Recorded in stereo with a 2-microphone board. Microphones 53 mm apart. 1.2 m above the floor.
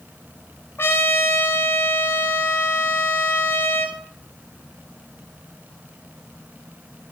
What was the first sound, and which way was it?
A trumpet, 45° left (ahead or behind).